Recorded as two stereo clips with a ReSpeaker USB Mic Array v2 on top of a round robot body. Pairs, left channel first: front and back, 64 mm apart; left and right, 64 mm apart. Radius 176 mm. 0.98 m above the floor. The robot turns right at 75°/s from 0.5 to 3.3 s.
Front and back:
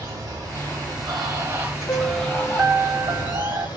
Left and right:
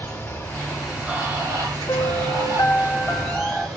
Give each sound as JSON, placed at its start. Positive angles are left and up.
{"t": 0.0, "sound": "running water", "azimuth_deg": 155, "distance_m": 1.6}
{"t": 1.9, "sound": "a piano", "azimuth_deg": 50, "distance_m": 0.8}